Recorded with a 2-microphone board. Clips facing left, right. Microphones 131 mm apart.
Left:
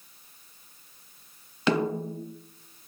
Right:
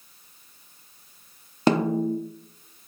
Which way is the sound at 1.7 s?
40° right (ahead or behind).